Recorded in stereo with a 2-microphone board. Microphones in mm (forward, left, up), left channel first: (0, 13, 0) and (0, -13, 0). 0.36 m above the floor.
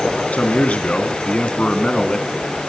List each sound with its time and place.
0.3 s a man speaking: 65° left (ahead or behind), 3.5 m; by 2.4 s 25° left (ahead or behind), 3.5 m